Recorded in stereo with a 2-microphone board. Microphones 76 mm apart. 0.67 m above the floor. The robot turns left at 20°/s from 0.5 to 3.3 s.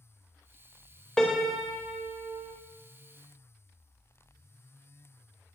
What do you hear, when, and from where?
1.2 s a piano: 5° left (ahead or behind), 0.6 m; by 2.5 s 20° right (ahead or behind), 0.6 m